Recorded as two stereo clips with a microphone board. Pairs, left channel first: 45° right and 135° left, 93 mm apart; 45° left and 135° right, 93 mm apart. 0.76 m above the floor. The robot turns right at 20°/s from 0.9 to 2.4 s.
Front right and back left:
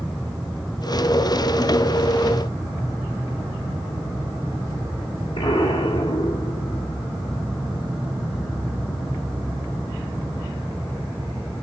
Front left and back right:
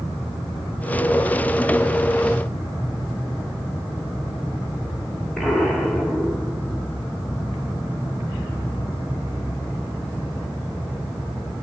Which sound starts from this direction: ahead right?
An explosion, at 5.4 s.